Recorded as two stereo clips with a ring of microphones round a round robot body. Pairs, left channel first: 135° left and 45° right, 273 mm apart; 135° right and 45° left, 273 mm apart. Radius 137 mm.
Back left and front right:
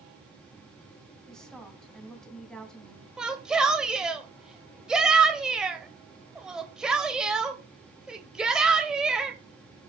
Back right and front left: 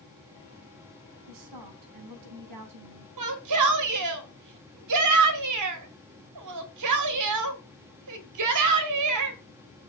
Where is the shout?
40° left, 2.5 m.